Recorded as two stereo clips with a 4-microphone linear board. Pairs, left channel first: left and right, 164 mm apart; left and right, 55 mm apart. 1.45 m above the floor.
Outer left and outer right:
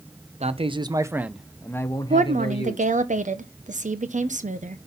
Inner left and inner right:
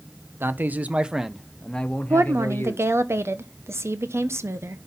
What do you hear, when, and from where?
0.4 s a man speaking: 45° right (ahead or behind), 0.8 m; by 2.9 s 45° left (ahead or behind), 1.2 m
2.1 s a woman speaking: 50° right (ahead or behind), 1.0 m